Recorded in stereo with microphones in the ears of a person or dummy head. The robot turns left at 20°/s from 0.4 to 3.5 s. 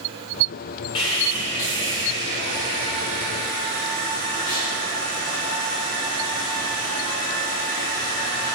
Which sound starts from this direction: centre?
Sawing, at 0.9 s.